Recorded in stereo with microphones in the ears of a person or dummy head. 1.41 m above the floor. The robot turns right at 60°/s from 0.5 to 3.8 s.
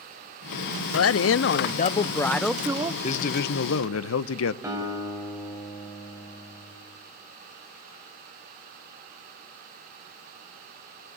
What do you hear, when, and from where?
0.9 s a woman speaking: 85° left, 0.5 m; by 2.9 s 155° right, 0.5 m
3.0 s a man speaking: 35° left, 0.8 m; by 4.5 s 80° left, 0.8 m
4.6 s a guitar: 10° right (ahead or behind), 5.5 m